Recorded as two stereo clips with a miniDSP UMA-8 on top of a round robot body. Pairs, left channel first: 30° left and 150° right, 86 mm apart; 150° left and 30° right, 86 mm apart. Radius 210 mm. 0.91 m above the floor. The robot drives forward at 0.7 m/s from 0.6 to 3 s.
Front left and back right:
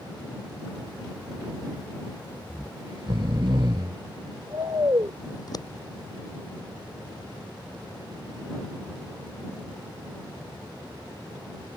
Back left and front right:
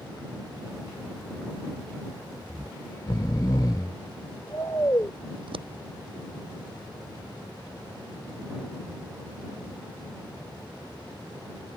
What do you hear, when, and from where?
2.5 s snoring: 5° right; by 5.1 s 175° right
5.3 s scissors: 15° right